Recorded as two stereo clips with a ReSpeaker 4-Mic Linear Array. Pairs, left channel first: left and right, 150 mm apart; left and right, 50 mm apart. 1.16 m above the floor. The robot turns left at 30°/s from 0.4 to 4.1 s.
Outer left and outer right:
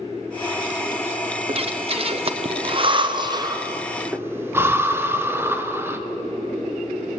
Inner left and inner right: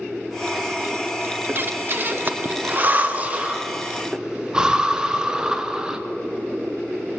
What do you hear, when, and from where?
1.5 s breathing: 40° right (ahead or behind), 0.5 m; by 6.0 s 15° right (ahead or behind), 0.5 m